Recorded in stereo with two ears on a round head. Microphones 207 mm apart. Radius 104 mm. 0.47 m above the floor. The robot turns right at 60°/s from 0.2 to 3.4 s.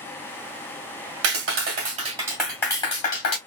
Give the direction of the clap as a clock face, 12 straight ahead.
2 o'clock.